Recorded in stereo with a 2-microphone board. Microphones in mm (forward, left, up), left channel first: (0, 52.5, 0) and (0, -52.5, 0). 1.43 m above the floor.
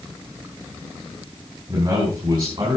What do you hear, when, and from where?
1.7 s a man speaking: 45° right (ahead or behind), 4 m; by 2.8 s 50° right (ahead or behind), 4.5 m